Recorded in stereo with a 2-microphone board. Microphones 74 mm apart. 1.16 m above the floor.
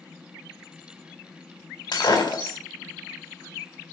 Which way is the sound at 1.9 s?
85° left.